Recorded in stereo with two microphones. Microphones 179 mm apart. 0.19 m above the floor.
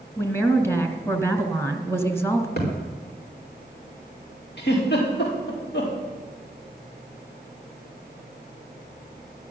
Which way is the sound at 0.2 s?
15° left (ahead or behind).